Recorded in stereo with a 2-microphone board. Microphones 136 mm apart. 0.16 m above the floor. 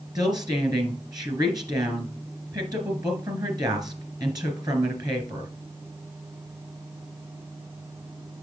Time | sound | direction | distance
0.1 | a woman speaking | 30° right (ahead or behind) | 2 m